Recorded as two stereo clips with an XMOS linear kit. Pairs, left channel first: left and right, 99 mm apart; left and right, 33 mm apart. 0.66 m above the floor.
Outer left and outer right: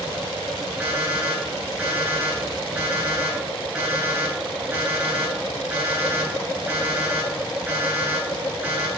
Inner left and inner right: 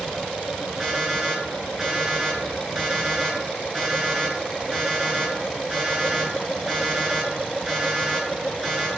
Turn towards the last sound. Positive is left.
turn(degrees=-15)  # may be behind; listen again after turning